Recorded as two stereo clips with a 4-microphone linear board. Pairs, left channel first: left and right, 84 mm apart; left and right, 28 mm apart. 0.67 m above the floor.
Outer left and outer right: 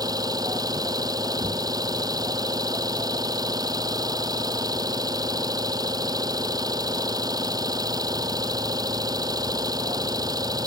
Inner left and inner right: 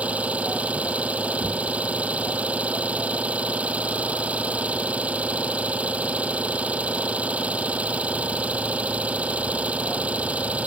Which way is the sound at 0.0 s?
50° right (ahead or behind).